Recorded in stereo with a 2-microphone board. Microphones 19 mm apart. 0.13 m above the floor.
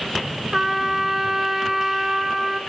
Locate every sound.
0.5 s a trumpet: 20° right (ahead or behind), 1.0 m